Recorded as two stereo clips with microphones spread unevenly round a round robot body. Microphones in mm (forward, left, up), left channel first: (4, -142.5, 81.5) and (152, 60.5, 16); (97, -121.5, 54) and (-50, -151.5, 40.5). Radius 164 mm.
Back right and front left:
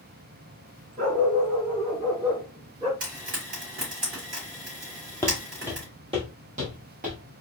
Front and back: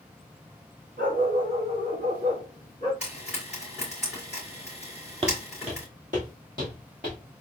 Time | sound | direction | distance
1.0 | a dog barking | 125° left | 1.1 m
3.0 | frying | 110° left | 3 m
5.2 | footsteps | 160° right | 0.6 m